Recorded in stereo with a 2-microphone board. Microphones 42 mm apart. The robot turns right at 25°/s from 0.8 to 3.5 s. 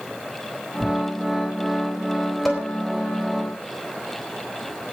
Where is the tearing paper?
5° left (ahead or behind), 1.5 m; by 1.0 s 10° left (ahead or behind), 1.5 m.